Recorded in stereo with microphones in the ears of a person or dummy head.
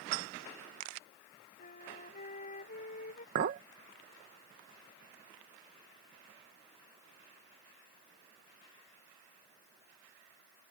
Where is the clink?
45° right (ahead or behind).